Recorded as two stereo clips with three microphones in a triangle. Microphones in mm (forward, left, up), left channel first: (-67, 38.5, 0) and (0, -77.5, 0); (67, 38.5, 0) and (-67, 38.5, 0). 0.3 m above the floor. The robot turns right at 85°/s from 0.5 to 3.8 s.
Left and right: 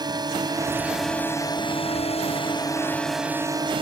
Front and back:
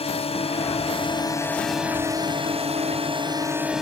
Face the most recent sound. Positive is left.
turn(degrees=-95)